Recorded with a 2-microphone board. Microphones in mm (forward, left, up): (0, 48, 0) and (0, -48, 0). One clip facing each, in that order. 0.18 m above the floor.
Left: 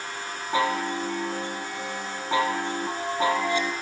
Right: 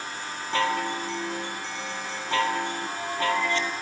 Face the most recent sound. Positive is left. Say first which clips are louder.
# left 1 dB
turn(degrees=15)  # may be behind; listen again after turning